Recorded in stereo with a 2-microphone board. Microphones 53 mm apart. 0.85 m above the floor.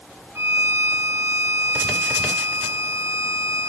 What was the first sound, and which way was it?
A violin, 50° right (ahead or behind).